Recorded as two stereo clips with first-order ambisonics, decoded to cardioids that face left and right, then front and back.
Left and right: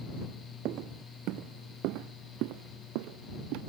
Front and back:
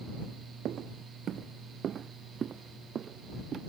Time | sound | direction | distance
0.7 | footsteps | 130° right | ?